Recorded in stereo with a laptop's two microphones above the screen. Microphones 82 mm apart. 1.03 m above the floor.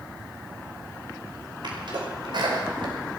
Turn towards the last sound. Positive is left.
turn(degrees=-70)  # may be behind; listen again after turning